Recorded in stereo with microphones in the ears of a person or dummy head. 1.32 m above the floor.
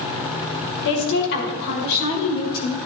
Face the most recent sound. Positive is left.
turn(degrees=60)  # may be behind; listen again after turning